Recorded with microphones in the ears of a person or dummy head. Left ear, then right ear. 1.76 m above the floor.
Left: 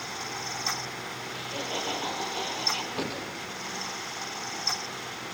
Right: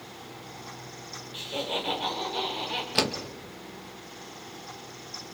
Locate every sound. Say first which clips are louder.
1.3 s laughter: right 3 dB; 10° right (ahead or behind), 6.5 m; by 2.9 s 5° right (ahead or behind), 6.5 m
3.0 s a door slam: right 6 dB; 70° right (ahead or behind), 2 m